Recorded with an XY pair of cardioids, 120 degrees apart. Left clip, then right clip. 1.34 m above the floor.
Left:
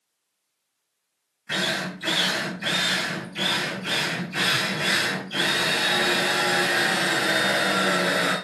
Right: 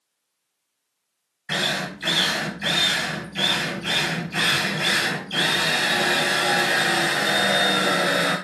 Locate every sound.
1.5 s a drill: 35° right, 1.4 m